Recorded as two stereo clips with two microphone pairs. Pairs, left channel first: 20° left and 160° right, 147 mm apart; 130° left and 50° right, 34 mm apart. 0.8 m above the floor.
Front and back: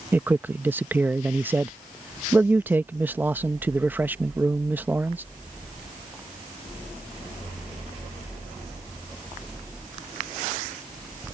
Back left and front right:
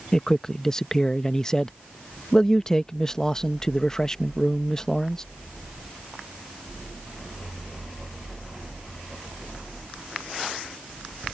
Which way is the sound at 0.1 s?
140° left.